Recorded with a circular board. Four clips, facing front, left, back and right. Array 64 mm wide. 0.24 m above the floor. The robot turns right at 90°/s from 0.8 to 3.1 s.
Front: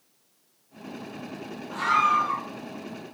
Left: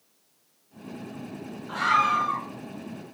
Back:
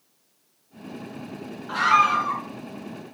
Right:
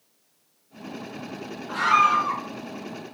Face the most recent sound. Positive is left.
turn(degrees=-45)